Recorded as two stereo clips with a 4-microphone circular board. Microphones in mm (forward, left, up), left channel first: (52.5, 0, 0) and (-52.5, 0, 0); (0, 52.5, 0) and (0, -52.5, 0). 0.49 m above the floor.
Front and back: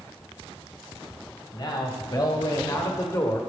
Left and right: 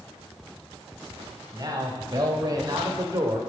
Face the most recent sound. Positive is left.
turn(degrees=-50)